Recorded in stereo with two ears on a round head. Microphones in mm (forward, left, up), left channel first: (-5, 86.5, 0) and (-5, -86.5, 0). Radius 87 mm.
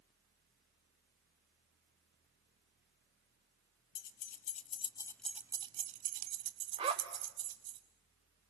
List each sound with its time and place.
4.0 s keys jangling: 50° left (ahead or behind), 1.0 m; by 7.8 s 70° right (ahead or behind), 1.5 m
6.8 s a zipper: 30° right (ahead or behind), 1.4 m